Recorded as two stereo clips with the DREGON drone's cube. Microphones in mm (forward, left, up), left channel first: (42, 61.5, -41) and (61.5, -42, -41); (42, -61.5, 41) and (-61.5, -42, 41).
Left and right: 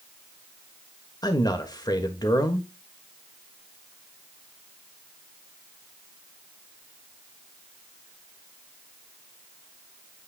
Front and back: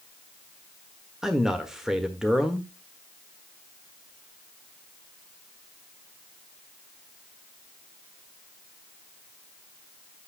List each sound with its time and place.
1.2 s a man speaking: 85° left, 1.3 m